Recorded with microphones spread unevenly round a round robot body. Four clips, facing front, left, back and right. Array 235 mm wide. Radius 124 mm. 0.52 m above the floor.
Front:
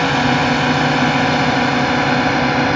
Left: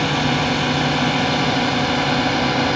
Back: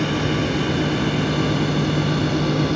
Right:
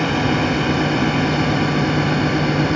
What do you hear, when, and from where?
0.0 s a drone: 5° left; by 2.8 s 20° left